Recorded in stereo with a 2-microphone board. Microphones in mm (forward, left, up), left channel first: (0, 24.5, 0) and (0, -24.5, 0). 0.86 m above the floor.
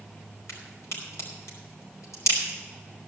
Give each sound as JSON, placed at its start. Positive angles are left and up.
{"t": 0.5, "sound": "a crack", "side_deg": 80, "distance_m": 5.0}